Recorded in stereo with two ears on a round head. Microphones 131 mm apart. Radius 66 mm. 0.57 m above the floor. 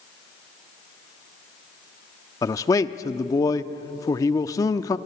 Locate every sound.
2.4 s a man speaking: 20° left (ahead or behind), 0.6 m